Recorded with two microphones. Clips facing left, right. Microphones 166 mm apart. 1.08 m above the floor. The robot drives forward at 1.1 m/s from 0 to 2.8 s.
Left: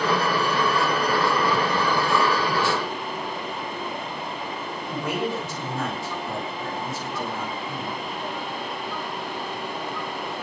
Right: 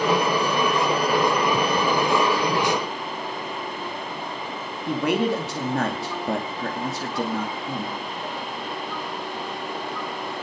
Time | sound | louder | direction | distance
4.9 | a man speaking | right 6 dB | 80° right | 2.5 m